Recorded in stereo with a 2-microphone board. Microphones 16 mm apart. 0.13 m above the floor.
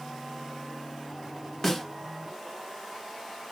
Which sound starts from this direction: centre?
A snare drum, at 1.6 s.